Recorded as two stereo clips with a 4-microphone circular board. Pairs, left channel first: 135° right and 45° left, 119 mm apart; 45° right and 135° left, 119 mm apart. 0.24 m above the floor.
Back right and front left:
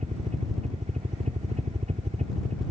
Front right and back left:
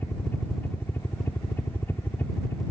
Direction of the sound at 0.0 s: 30° left.